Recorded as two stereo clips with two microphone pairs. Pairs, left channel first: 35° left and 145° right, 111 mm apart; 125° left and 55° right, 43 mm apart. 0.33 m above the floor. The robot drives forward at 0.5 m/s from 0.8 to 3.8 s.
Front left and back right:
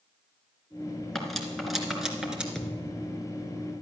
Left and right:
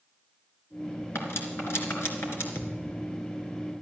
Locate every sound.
1.1 s cutlery clinking: 125° left, 2.5 m; by 2.5 s 135° left, 3 m
2.5 s a thud: 120° left, 1.7 m; by 3.3 s 130° left, 1.9 m